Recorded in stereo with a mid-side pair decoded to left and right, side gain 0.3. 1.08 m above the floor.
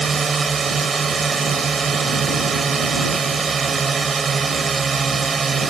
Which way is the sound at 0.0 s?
45° right.